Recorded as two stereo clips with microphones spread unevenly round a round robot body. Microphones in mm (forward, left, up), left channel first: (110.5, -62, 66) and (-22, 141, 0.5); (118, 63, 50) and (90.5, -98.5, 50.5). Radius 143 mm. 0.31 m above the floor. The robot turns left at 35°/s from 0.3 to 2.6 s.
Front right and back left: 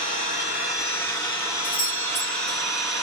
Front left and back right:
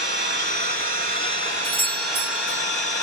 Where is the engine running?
110° right, 1.9 m; by 3.0 s 170° left, 1.9 m.